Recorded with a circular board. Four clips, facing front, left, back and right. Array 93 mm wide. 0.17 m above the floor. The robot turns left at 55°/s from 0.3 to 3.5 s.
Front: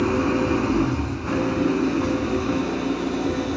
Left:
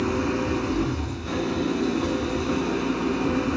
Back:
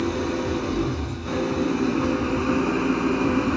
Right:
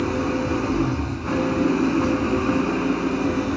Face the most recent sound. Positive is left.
turn(degrees=180)